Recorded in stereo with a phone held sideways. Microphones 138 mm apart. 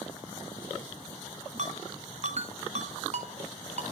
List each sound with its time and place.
1.6 s a ringtone: 55° right (ahead or behind), 0.9 m